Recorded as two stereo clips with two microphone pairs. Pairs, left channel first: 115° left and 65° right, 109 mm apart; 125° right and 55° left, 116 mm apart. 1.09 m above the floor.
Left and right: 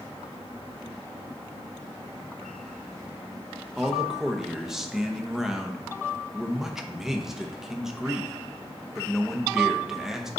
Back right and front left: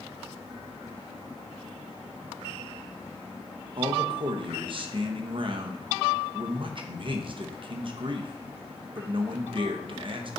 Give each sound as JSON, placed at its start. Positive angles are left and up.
{"t": 3.8, "sound": "a man speaking", "azimuth_deg": 20, "distance_m": 1.0}